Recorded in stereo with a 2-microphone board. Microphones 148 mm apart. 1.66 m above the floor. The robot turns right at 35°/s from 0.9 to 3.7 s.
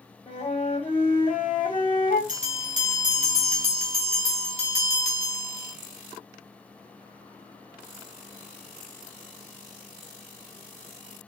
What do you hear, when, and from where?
0.3 s a flute: 40° left, 1.8 m; by 2.2 s 85° left, 1.8 m
2.3 s a bell: 100° right, 1.4 m; by 5.7 s 55° right, 1.4 m